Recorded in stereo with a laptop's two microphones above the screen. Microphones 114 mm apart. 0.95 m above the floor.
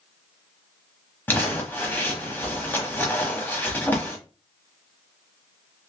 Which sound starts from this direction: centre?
Crumpling, at 1.3 s.